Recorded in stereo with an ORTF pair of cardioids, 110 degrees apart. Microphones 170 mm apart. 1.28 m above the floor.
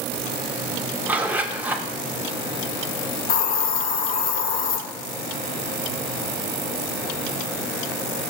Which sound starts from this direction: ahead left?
A hiss, at 3.3 s.